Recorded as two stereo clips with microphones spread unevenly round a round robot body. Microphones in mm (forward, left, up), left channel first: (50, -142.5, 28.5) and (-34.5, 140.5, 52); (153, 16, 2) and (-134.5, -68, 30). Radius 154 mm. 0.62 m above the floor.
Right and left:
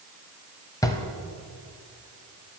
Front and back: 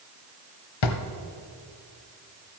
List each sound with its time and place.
0.8 s a drawer: 5° left, 1.0 m